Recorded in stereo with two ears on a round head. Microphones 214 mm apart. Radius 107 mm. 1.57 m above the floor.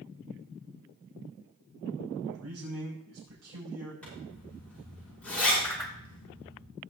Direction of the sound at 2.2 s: 85° right.